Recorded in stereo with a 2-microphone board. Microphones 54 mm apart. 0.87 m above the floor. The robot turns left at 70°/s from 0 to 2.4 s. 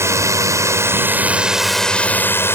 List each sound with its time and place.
0.0 s a drone: 60° right; by 2.6 s 130° left